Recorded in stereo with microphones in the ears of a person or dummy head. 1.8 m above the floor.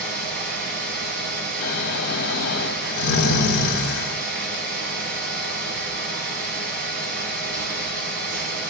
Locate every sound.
0.0 s a fan: 55° right (ahead or behind), 1.5 m
1.6 s snoring: 70° left (ahead or behind), 1.5 m